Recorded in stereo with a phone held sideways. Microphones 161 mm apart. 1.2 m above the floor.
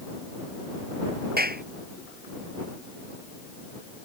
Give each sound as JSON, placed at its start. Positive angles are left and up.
{"t": 1.4, "sound": "a clap", "side_deg": -75}